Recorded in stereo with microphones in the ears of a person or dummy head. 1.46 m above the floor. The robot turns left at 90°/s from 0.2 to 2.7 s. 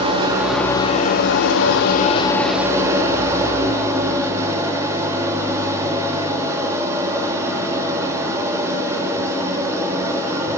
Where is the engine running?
150° right, 1.5 m; by 10.6 s 15° right, 1.5 m.